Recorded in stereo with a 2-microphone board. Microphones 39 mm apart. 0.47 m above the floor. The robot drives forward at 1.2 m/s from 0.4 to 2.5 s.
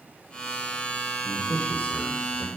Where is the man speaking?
35° left (ahead or behind), 2 m; by 2.5 s 50° left (ahead or behind), 1.7 m.